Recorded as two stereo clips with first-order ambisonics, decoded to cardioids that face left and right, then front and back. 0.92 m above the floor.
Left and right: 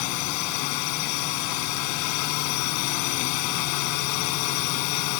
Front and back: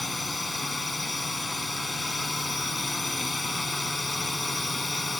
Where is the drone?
80° left.